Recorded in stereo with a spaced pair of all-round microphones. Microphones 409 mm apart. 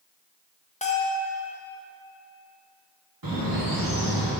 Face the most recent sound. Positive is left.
turn(degrees=-55)  # may be behind; listen again after turning